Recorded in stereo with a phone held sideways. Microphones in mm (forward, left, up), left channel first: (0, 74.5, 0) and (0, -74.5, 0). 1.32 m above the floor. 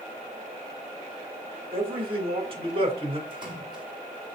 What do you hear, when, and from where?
1.7 s a man speaking: 40° right (ahead or behind), 3 m
3.3 s a splash: 30° right (ahead or behind), 5.5 m